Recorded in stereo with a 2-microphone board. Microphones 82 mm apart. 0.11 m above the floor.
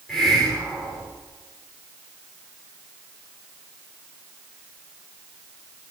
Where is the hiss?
5° left (ahead or behind), 10 m.